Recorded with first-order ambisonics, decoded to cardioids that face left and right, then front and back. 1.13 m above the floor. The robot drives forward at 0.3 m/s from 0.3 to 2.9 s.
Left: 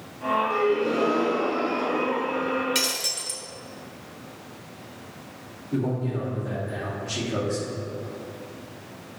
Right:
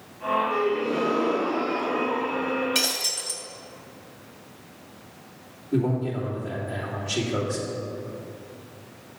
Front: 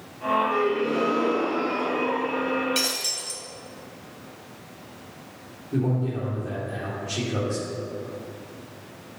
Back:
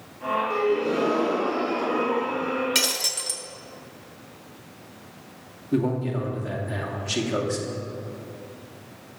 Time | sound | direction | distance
0.5 | a gasp | 145° left | 1.9 m
2.8 | breaking glass | 170° left | 1.2 m
5.7 | a man speaking | straight behind | 2.5 m